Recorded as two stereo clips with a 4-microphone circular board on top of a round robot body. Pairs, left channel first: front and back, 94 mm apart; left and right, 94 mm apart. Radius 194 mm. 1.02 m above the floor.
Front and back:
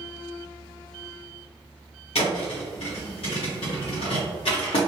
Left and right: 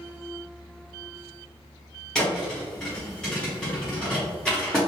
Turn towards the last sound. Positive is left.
turn(degrees=10)